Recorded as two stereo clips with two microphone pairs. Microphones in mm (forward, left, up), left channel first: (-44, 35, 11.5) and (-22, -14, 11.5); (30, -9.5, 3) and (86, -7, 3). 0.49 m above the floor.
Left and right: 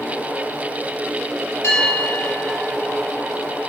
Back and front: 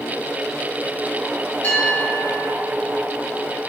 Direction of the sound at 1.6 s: 130° left.